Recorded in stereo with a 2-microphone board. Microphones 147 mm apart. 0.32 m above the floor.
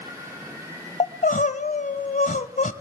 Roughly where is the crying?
Left.